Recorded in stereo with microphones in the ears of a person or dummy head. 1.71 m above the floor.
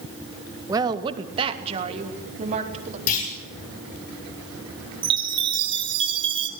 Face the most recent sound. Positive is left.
turn(degrees=-25)  # may be behind; listen again after turning